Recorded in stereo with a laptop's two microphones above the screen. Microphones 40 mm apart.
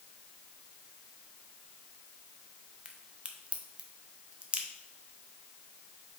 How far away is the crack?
About 0.6 m.